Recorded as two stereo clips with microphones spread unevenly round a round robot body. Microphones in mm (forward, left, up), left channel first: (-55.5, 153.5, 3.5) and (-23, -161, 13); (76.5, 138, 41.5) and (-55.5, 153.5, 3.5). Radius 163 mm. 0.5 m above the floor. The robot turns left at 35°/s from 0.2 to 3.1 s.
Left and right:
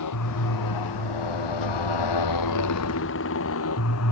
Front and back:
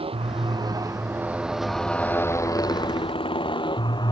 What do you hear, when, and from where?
0.0 s a motorcycle: 130° left; by 4.1 s 50° left